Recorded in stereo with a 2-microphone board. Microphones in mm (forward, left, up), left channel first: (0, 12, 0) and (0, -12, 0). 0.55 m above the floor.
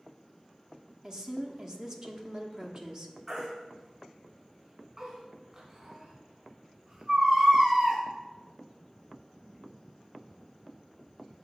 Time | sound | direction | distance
1.0 | a woman speaking | 30° right (ahead or behind) | 0.9 m
3.3 | a baby crying | 30° right (ahead or behind) | 2.5 m